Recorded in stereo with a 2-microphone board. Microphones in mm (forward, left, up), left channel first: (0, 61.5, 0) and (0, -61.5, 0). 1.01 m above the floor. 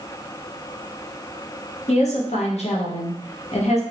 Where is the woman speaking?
60° left (ahead or behind), 0.9 m.